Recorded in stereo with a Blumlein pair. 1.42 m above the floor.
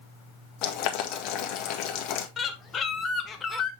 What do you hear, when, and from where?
0.6 s boiling: 40° left, 1.7 m
2.4 s a bird: 20° left, 1.2 m